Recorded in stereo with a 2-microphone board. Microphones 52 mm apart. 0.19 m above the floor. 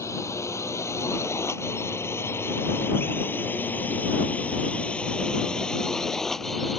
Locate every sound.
0.0 s a drone: 70° left (ahead or behind); by 6.8 s centre (ahead or behind)